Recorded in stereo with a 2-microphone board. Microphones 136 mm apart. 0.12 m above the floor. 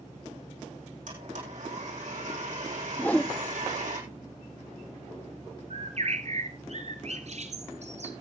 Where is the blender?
70° right (ahead or behind), 5.5 m.